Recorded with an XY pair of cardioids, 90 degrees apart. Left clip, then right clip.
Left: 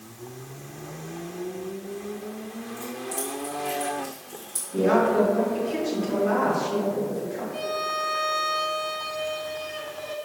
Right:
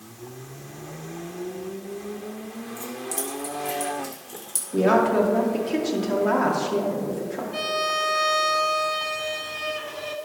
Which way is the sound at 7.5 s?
65° right.